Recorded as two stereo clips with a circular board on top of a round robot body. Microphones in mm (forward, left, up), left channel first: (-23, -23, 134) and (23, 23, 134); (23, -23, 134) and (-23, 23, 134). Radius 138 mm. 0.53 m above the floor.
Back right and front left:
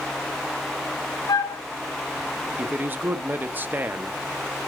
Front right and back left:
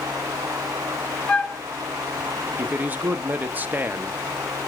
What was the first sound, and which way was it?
A flute, 120° right.